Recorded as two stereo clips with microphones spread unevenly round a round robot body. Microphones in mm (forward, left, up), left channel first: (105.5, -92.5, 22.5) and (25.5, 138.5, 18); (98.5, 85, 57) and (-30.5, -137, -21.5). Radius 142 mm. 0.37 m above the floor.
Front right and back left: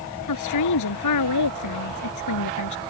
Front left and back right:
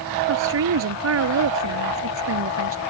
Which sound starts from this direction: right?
A woman speaking, at 0.3 s.